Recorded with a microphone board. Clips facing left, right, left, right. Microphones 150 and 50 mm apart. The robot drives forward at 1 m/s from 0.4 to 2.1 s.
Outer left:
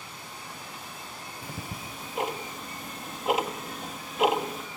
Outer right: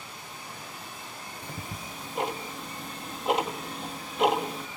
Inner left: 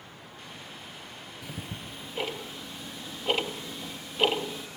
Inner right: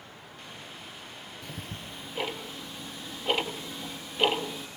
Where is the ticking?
5° left (ahead or behind), 0.9 m.